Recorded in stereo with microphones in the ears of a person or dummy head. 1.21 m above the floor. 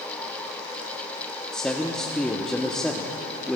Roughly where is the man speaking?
Centre.